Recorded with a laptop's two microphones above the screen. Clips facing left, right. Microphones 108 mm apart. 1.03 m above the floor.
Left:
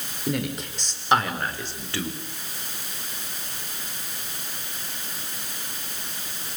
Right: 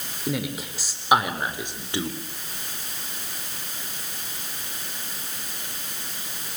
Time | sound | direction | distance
0.3 | a man speaking | centre (ahead or behind) | 4.5 m